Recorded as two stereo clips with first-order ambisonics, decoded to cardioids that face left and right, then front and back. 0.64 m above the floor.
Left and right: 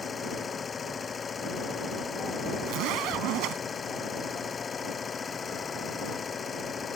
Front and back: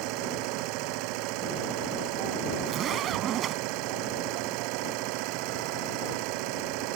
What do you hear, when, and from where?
0.0 s an engine running: 160° left
2.6 s a zipper: 125° right